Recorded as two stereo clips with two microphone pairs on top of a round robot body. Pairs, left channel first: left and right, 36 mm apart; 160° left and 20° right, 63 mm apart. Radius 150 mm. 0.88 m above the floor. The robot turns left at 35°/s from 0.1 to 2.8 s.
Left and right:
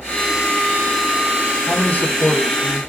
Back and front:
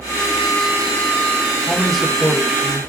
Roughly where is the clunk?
I don't hear a clunk.